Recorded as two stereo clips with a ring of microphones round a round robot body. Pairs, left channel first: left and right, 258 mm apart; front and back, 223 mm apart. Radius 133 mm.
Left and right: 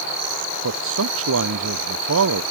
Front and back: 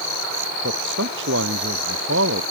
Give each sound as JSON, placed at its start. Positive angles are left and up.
{"t": 0.6, "sound": "a man speaking", "azimuth_deg": -130}